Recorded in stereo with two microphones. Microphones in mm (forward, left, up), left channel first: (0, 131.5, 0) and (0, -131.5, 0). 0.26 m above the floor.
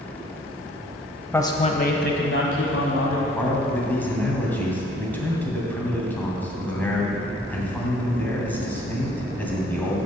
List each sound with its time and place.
1.3 s a man speaking: 10° left (ahead or behind), 0.9 m; by 3.3 s 65° left (ahead or behind), 2 m
3.4 s a man speaking: 5° left (ahead or behind), 2 m